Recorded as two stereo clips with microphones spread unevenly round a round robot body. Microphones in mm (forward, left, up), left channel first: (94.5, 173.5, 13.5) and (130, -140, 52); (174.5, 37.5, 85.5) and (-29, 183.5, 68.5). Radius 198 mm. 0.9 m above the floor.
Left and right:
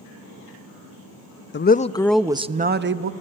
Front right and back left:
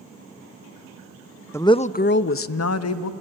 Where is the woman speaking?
45° left, 0.8 m; by 3.1 s 35° right, 1.1 m.